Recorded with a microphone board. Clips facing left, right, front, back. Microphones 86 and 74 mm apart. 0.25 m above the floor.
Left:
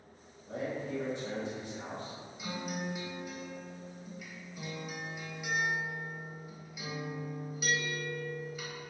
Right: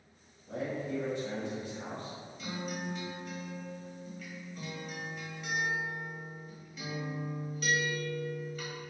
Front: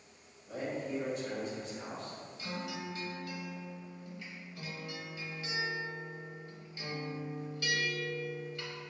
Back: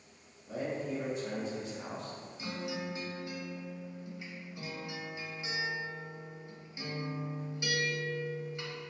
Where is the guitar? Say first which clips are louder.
Left 1 dB, back 2 dB; 155° left, 0.7 m.